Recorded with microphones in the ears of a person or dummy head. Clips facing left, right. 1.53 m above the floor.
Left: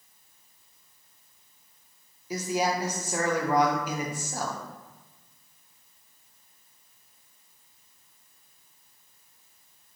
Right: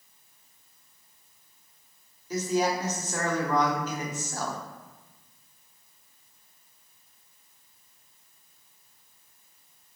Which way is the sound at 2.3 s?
10° left (ahead or behind).